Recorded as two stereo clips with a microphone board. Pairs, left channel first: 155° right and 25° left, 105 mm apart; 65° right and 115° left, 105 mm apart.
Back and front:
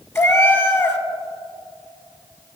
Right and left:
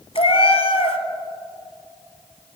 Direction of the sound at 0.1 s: 95° right.